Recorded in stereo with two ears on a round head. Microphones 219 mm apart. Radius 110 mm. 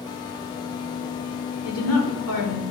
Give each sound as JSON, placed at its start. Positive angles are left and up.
{"t": 1.6, "sound": "a woman speaking", "side_deg": 65, "distance_m": 1.7}